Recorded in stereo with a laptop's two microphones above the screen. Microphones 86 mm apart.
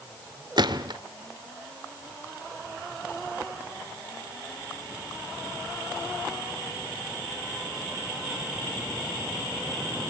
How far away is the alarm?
I don't hear an alarm.